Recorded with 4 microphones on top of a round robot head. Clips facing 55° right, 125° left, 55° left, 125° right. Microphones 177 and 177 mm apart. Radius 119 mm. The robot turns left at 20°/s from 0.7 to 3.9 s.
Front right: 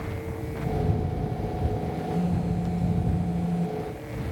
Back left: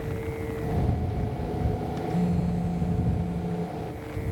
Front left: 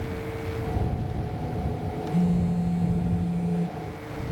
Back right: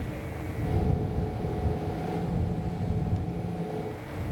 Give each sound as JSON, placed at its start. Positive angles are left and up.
{"t": 2.1, "sound": "a phone buzzing", "azimuth_deg": 45}